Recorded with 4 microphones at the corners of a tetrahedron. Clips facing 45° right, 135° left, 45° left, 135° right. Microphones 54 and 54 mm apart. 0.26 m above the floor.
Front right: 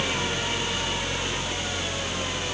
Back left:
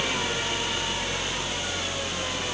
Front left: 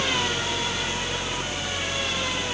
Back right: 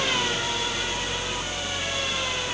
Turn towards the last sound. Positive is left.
No sound to turn to.